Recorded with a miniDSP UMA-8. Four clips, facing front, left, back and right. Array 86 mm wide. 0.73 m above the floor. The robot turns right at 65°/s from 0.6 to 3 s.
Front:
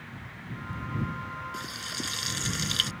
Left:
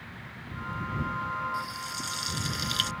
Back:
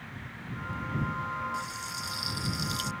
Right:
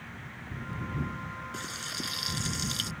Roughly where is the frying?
Ahead right.